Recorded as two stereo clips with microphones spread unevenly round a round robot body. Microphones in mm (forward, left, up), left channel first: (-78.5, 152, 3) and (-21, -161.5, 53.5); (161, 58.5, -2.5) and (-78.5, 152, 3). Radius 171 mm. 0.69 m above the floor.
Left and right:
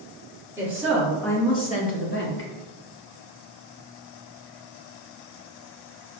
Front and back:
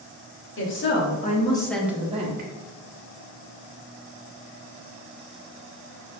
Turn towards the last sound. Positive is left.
turn(degrees=120)